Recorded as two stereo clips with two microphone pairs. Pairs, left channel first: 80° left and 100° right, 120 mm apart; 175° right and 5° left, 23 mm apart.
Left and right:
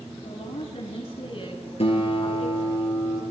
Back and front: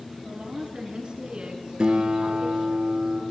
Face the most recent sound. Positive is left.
turn(degrees=45)